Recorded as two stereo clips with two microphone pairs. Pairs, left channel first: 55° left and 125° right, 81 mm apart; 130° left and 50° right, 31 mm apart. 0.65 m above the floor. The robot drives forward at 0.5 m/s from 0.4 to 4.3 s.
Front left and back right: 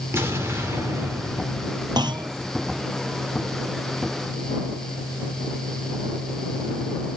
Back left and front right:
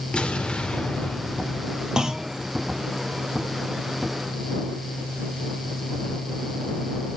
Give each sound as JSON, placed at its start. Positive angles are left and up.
{"t": 0.1, "sound": "an explosion", "azimuth_deg": 180, "distance_m": 2.0}
{"t": 2.0, "sound": "a clunk", "azimuth_deg": -120, "distance_m": 0.9}